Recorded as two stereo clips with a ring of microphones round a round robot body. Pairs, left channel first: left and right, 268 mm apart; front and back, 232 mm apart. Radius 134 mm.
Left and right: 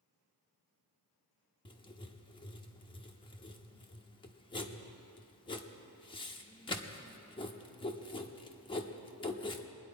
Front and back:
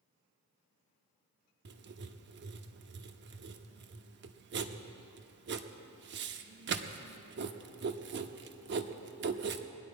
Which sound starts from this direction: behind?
Writing, at 1.6 s.